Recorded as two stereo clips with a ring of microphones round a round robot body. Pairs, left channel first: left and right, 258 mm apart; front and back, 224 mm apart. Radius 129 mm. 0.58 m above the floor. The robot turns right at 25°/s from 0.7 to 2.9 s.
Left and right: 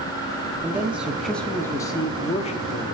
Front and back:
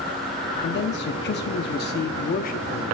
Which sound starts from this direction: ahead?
A man speaking, at 0.6 s.